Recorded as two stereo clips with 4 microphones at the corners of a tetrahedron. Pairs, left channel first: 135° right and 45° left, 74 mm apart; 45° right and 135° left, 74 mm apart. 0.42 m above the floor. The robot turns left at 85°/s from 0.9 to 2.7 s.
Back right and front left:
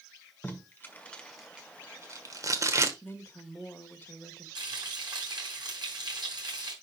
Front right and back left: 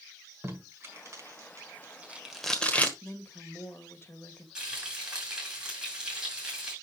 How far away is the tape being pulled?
About 1.5 m.